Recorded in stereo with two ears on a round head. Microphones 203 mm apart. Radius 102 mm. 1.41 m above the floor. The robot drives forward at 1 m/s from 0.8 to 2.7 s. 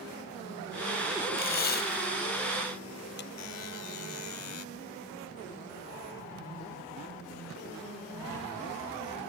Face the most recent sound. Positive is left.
turn(degrees=75)  # may be behind; listen again after turning